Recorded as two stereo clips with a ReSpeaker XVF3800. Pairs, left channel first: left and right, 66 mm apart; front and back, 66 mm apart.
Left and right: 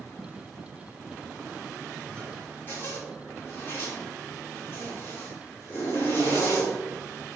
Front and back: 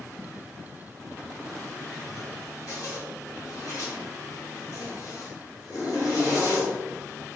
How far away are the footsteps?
About 2.5 m.